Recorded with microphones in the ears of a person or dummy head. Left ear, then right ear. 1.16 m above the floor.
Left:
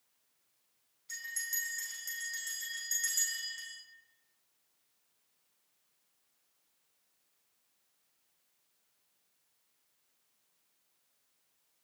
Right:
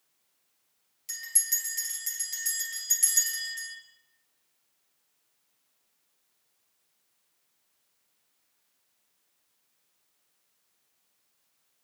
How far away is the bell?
About 2.5 m.